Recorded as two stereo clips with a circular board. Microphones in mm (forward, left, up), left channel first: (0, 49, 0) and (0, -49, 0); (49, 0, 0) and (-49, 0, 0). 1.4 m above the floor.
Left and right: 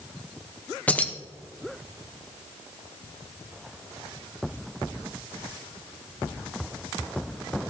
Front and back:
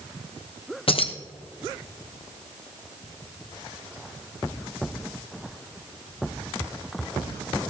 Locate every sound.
0.9 s keys jangling: 15° left, 0.9 m